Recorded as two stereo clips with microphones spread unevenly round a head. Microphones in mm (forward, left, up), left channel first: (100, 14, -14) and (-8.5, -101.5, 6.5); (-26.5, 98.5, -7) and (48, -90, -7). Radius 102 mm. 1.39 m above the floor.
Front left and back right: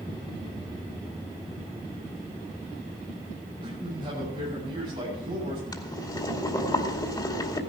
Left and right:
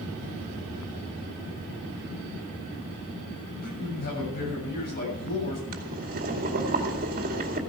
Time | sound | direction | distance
3.6 | a man speaking | 160° left | 7 m
5.7 | boiling | 20° right | 2.5 m